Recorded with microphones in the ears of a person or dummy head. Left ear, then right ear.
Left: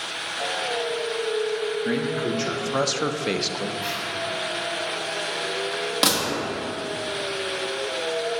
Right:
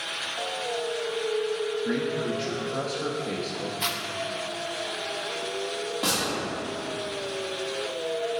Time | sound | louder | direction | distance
1.9 | a man speaking | left 3 dB | 30° left (ahead or behind) | 0.8 m
3.8 | a zipper | left 1 dB | 45° right (ahead or behind) | 0.7 m
6.0 | a gunshot | left 5 dB | 55° left (ahead or behind) | 1.6 m